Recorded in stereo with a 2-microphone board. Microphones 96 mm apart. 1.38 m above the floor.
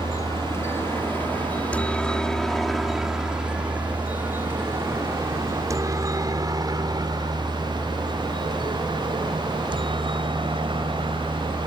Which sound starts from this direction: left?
A helicopter, at 0.0 s.